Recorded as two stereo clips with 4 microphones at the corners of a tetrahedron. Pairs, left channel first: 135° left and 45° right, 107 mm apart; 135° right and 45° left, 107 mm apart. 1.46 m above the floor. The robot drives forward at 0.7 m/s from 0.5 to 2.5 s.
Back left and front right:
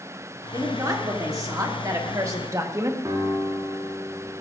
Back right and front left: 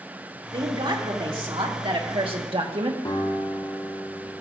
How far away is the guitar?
About 3 m.